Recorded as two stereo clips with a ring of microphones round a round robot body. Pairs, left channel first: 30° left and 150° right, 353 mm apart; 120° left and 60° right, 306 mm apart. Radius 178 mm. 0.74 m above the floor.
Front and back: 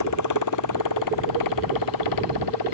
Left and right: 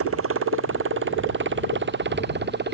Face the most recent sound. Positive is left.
turn(degrees=-5)